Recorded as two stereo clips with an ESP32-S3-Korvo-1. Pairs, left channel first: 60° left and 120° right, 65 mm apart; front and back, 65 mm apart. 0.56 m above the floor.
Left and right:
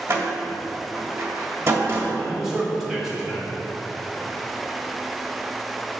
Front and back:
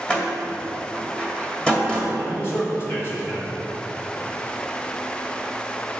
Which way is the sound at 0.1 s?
70° right.